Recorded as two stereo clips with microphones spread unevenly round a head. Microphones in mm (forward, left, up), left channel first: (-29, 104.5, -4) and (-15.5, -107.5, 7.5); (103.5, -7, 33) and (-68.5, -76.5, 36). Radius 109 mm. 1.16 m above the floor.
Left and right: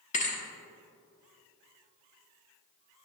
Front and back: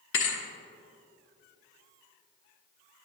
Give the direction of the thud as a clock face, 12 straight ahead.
11 o'clock.